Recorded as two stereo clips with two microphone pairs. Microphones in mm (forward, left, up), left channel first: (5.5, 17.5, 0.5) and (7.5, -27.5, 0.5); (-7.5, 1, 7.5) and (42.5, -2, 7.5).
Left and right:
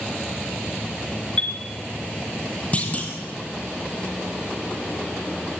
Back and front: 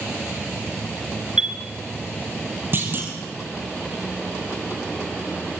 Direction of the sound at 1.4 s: 50° left.